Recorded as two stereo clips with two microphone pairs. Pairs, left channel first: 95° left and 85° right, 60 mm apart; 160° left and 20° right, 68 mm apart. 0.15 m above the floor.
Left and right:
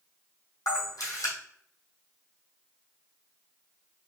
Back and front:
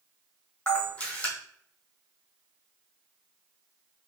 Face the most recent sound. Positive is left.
turn(degrees=85)